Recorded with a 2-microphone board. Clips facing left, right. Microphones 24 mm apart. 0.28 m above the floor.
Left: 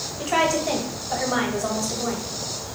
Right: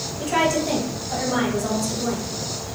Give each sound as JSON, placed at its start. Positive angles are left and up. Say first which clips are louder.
{"t": 0.2, "sound": "a woman speaking", "louder": "right 1 dB", "side_deg": 25, "distance_m": 1.0}